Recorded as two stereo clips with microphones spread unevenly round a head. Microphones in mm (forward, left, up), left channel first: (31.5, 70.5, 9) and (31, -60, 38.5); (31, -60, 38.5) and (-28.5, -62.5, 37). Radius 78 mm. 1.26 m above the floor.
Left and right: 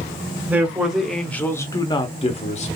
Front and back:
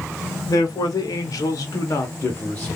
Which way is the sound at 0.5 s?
10° right.